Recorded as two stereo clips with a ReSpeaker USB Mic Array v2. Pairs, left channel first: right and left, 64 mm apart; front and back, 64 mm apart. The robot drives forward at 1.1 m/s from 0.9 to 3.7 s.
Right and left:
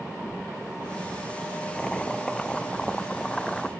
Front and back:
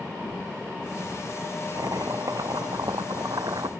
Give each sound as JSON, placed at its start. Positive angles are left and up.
{"t": 1.8, "sound": "chopping", "azimuth_deg": -165}